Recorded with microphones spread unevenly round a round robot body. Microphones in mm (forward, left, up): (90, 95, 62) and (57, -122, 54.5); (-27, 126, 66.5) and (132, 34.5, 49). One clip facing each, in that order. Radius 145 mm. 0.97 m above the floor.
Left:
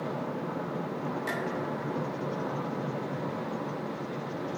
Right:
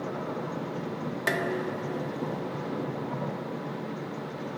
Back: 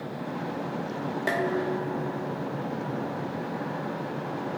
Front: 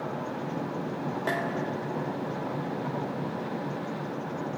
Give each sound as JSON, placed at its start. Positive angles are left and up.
{"t": 1.3, "sound": "dishes clattering", "azimuth_deg": -130, "distance_m": 1.4}